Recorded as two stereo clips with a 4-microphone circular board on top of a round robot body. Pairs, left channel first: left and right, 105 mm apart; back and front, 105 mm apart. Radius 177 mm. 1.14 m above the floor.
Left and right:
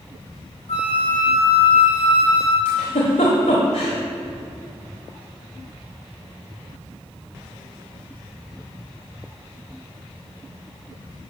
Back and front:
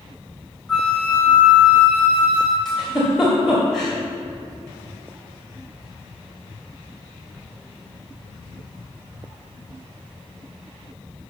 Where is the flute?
95° left, 0.5 m.